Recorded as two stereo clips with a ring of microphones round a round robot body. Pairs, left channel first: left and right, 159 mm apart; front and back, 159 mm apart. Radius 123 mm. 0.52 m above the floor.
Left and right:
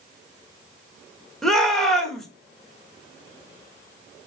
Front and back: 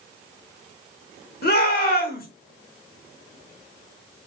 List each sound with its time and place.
1.4 s a shout: straight ahead, 1.7 m